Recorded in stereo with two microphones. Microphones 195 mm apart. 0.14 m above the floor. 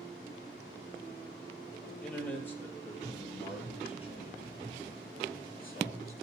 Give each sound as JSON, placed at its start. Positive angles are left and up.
{"t": 2.0, "sound": "a man speaking", "side_deg": 5, "distance_m": 3.0}